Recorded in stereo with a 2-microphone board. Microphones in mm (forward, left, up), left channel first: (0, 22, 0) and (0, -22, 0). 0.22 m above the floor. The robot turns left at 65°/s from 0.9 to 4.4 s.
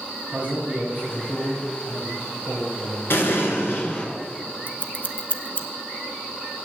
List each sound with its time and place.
0.3 s a man speaking: 135° right, 3.5 m; by 4.1 s 15° left, 3.5 m
3.1 s an explosion: 105° left, 2 m; by 4.1 s 45° left, 2 m
4.7 s scissors: 55° left (ahead or behind), 0.9 m